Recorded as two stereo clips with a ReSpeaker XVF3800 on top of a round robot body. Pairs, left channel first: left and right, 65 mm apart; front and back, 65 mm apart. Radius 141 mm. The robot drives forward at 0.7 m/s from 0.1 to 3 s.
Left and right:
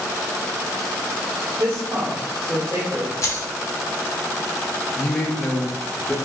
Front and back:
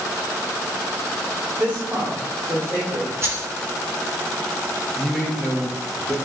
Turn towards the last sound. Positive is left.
turn(degrees=75)